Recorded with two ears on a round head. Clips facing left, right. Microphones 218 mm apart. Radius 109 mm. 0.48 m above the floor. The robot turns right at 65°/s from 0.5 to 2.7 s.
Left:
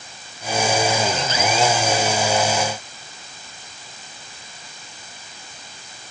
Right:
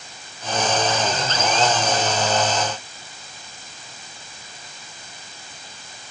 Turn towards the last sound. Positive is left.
No sound to turn to.